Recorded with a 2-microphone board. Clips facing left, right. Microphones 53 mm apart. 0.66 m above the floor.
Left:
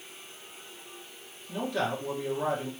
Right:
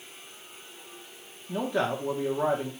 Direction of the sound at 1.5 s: 20° right (ahead or behind).